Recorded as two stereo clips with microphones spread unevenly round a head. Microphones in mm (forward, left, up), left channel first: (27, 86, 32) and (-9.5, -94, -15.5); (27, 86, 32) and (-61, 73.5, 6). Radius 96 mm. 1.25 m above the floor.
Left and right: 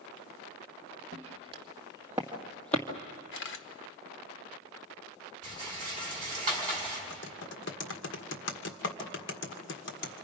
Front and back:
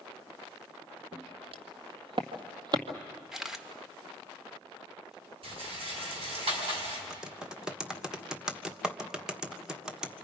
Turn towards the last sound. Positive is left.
turn(degrees=110)